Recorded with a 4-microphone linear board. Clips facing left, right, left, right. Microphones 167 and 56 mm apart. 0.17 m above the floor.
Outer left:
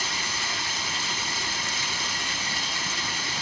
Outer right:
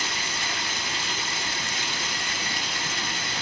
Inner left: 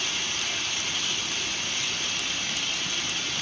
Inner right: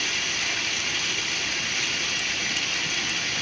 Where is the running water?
65° right (ahead or behind), 1.2 m.